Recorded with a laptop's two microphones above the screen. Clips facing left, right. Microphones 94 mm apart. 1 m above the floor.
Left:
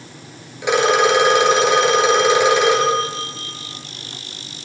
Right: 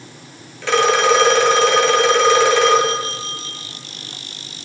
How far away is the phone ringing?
About 9 m.